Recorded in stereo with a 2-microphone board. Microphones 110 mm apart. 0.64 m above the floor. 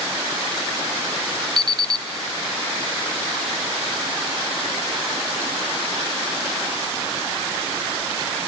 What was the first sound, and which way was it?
An alarm clock, 40° right (ahead or behind).